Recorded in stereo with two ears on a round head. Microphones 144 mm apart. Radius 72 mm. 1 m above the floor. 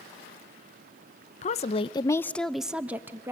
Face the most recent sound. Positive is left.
turn(degrees=-15)  # may be behind; listen again after turning